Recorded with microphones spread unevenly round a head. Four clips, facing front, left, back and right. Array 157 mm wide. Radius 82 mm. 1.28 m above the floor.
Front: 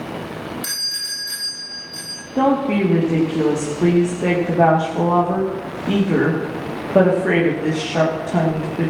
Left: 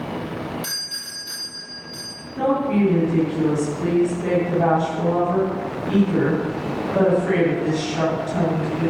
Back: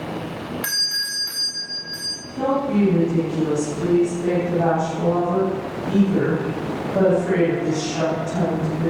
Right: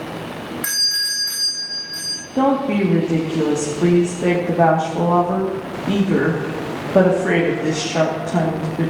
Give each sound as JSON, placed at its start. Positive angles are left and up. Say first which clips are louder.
{"t": 0.6, "sound": "a doorbell", "louder": "right 6 dB, back 3 dB", "azimuth_deg": 180, "distance_m": 5.0}
{"t": 2.4, "sound": "a woman speaking", "louder": "right 3 dB, front 3 dB", "azimuth_deg": -45, "distance_m": 2.5}